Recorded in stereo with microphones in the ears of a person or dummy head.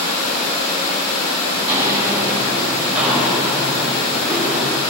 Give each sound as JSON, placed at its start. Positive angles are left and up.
{"t": 1.5, "sound": "footsteps", "side_deg": -10, "distance_m": 9.5}